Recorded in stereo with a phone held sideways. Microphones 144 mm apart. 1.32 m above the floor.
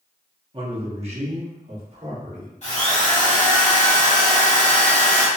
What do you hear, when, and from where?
0.5 s a man speaking: 35° right (ahead or behind), 0.6 m; by 2.5 s 50° right (ahead or behind), 1.5 m
2.6 s a drill: 50° left (ahead or behind), 1.1 m